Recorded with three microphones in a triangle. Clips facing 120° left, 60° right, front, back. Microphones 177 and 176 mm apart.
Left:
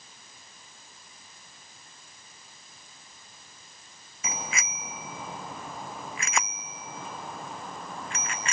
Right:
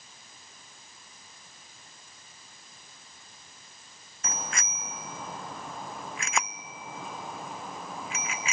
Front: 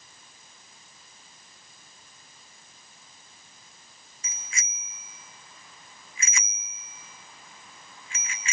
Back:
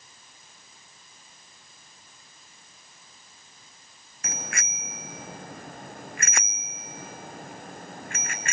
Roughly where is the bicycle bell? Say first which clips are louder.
Left 1 dB, back 9 dB; behind right.